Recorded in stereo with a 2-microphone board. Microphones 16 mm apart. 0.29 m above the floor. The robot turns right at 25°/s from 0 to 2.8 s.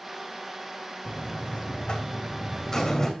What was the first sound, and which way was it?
A buzzer, 110° left.